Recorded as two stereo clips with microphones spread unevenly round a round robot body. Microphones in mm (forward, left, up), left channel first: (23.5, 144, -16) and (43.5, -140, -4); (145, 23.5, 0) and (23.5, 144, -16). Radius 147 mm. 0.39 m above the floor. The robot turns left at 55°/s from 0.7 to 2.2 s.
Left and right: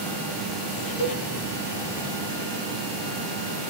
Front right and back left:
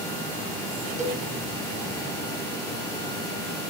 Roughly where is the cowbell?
Left.